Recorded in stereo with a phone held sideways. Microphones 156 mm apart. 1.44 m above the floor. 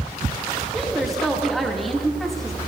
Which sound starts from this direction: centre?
A woman speaking, at 0.7 s.